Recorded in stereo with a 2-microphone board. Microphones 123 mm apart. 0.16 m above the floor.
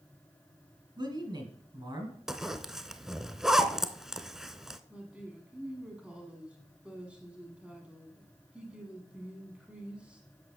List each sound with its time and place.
1.0 s a man speaking: 35° right (ahead or behind), 1.6 m
2.3 s a zipper: 5° right (ahead or behind), 0.5 m
4.9 s a woman speaking: 10° right (ahead or behind), 1.2 m